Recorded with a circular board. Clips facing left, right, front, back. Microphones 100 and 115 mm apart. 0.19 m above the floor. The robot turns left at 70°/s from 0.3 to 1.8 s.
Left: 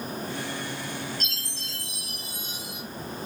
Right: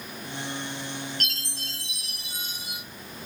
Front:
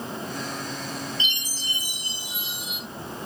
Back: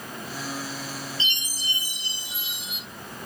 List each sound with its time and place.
1.2 s a chime: 70° right, 6 m; by 2.8 s 115° right, 6 m